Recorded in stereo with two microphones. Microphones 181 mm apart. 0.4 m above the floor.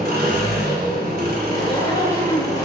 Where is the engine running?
60° right (ahead or behind), 1.2 m.